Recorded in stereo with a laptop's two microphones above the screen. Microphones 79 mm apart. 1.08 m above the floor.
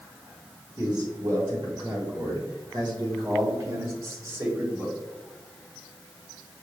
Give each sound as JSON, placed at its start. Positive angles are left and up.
{"t": 0.8, "sound": "a man speaking", "side_deg": -60, "distance_m": 1.7}